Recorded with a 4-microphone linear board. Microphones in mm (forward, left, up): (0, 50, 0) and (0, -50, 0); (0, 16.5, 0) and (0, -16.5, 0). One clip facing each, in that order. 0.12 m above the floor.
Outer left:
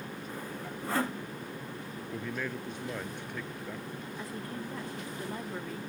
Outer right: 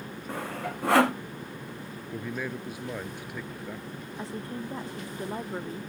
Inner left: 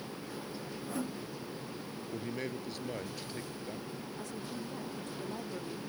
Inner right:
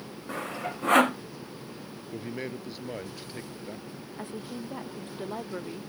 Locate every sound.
0.3 s sawing: 75° right (ahead or behind)
2.1 s a man speaking: 10° right (ahead or behind)
4.2 s a woman speaking: 30° right (ahead or behind)